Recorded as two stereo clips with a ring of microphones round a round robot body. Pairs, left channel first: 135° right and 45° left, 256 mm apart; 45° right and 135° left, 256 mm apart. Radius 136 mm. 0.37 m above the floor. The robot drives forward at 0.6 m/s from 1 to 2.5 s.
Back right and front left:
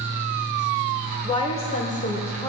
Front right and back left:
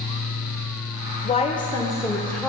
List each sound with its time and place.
1.2 s a woman speaking: 80° right, 1.4 m; by 2.5 s 135° right, 1.5 m